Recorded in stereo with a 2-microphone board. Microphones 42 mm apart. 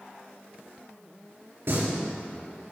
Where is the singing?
60° right (ahead or behind), 3.5 m.